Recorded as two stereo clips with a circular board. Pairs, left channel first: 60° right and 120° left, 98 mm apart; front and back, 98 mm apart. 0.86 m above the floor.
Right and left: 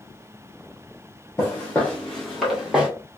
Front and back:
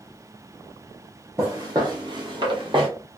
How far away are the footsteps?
About 1.6 m.